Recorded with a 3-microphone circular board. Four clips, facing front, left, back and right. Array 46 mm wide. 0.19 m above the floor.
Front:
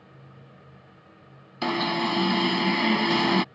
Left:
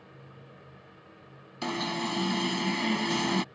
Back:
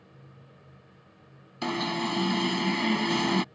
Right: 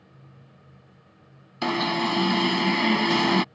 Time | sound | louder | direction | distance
1.6 | an alarm | right 7 dB, front 4 dB | 55° right | ?